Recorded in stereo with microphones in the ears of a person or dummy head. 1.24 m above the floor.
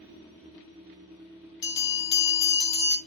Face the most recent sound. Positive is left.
turn(degrees=20)  # may be behind; listen again after turning